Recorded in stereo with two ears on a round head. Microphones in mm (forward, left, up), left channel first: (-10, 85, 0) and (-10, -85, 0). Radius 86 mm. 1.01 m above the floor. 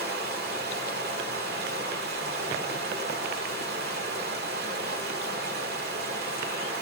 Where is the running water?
55° right (ahead or behind), 2 m.